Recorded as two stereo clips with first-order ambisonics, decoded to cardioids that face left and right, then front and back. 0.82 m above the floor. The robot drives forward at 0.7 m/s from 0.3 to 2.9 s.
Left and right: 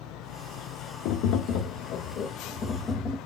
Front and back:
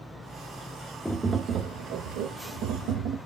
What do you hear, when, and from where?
1.1 s tapping: 90° left, 0.6 m; by 3.2 s 160° left, 1.4 m